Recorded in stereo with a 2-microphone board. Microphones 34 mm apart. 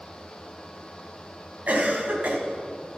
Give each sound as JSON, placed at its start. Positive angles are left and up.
{"t": 1.7, "sound": "a cough", "side_deg": -55, "distance_m": 2.5}